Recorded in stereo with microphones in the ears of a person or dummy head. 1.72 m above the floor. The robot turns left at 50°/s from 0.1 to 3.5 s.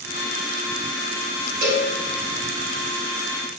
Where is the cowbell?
45° right (ahead or behind), 1.8 m; by 1.9 s 30° right (ahead or behind), 1.8 m.